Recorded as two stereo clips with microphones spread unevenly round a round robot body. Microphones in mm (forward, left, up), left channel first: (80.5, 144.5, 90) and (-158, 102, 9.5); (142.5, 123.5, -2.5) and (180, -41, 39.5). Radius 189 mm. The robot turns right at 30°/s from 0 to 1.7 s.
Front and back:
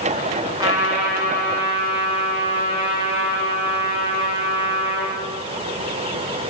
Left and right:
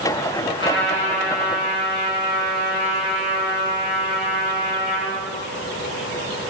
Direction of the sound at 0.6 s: 115° left.